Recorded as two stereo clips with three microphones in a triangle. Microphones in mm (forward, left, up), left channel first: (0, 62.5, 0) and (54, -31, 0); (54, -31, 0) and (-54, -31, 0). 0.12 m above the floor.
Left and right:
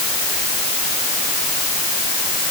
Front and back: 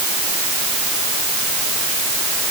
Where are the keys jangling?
I don't hear keys jangling.